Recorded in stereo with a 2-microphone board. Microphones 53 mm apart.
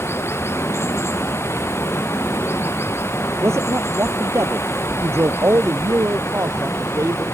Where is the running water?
55° left (ahead or behind).